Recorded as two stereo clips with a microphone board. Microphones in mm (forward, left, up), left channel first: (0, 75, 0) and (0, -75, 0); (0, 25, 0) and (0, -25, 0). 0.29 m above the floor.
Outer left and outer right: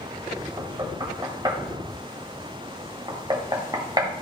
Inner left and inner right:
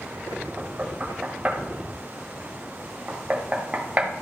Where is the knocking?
25° right (ahead or behind), 1.3 m.